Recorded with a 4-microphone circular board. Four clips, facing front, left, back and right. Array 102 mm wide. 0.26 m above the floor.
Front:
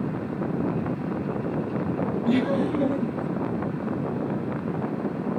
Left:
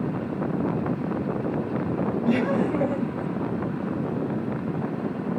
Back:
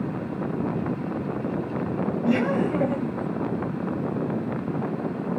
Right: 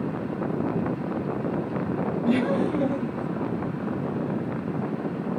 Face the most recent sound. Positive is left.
turn(degrees=140)